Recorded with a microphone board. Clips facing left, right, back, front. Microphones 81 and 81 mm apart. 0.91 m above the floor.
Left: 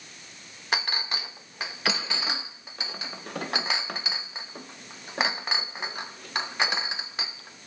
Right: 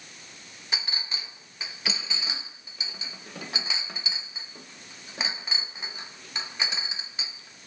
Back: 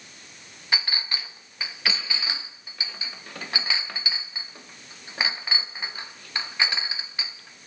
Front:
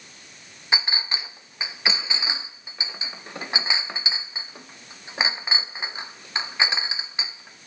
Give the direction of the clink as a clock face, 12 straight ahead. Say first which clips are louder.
Left 7 dB, front 2 dB; 10 o'clock.